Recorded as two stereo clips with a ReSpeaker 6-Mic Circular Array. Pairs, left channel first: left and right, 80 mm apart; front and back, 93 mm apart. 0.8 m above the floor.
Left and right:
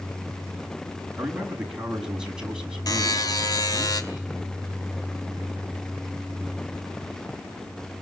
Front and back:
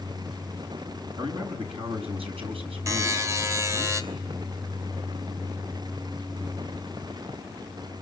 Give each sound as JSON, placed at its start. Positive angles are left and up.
{"t": 1.2, "sound": "a man speaking", "azimuth_deg": -170, "distance_m": 6.0}
{"t": 2.9, "sound": "a buzzer", "azimuth_deg": 125, "distance_m": 2.5}